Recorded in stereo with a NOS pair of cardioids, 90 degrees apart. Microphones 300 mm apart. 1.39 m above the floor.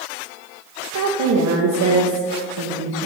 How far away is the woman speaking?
About 0.7 m.